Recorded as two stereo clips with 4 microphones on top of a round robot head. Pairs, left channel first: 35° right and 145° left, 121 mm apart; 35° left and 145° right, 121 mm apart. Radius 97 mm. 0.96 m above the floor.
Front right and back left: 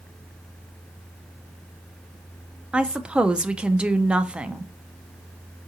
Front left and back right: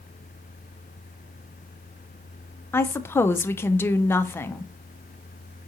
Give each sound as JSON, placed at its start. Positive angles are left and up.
{"t": 2.7, "sound": "a woman speaking", "azimuth_deg": 75, "distance_m": 0.5}